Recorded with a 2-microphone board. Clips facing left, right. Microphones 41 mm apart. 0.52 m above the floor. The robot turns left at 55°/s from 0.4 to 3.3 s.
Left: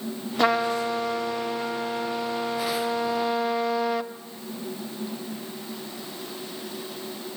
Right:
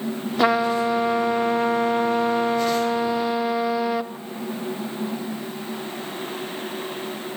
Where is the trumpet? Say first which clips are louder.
Right 3 dB; 10° right, 0.7 m; by 4.1 s 170° right, 0.7 m.